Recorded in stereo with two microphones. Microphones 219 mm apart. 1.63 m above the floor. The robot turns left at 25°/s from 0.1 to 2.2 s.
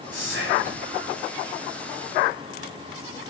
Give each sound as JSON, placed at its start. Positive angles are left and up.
{"t": 0.1, "sound": "whispering", "side_deg": -55, "distance_m": 7.0}